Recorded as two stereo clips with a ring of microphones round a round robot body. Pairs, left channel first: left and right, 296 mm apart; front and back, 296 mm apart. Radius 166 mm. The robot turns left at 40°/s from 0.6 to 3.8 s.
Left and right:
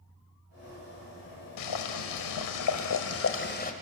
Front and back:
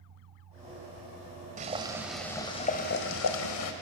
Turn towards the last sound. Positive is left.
turn(degrees=25)